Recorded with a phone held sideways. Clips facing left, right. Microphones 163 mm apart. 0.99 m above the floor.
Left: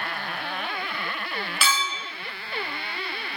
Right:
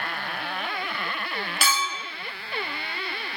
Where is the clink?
40° right (ahead or behind), 1.0 m.